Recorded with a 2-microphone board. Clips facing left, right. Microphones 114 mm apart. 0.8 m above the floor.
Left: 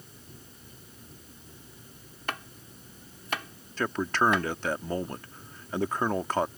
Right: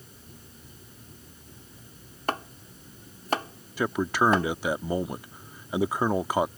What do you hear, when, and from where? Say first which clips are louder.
2.3 s chopping: right 6 dB; 35° right (ahead or behind)
3.8 s a man speaking: right 2 dB; 10° right (ahead or behind)